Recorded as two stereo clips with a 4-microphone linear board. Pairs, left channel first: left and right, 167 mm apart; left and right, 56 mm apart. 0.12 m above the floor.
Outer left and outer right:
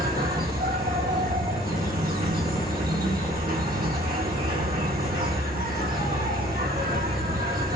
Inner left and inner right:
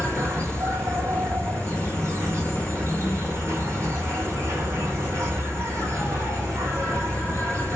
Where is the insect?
75° right (ahead or behind), 1.7 m.